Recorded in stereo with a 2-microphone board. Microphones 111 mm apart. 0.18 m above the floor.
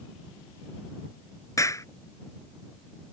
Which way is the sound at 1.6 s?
30° left (ahead or behind).